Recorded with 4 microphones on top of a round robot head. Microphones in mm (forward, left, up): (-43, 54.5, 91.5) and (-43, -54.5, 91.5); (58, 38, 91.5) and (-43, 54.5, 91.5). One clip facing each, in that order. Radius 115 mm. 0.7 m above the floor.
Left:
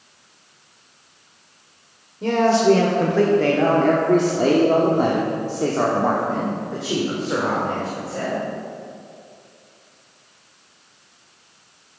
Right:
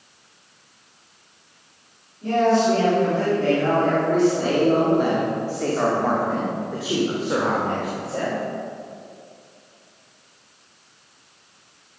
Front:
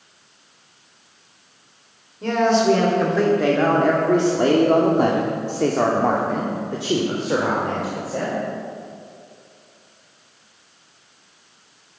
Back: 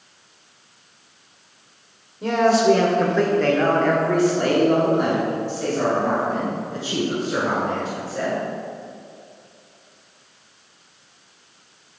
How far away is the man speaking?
About 2.5 m.